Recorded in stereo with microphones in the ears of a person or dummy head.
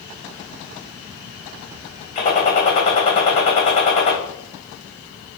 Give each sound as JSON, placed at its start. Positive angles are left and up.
{"t": 2.1, "sound": "a gunshot", "side_deg": 35, "distance_m": 1.2}